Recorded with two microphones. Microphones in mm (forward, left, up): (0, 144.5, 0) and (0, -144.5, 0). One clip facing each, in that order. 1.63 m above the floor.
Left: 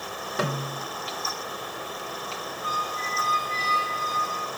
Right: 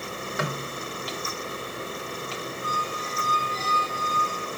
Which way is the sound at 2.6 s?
65° left (ahead or behind).